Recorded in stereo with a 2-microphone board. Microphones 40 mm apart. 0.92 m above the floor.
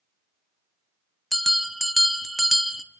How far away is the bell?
About 0.9 m.